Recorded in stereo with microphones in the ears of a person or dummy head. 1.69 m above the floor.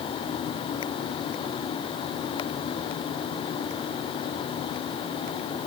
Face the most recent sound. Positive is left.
No sound to turn to.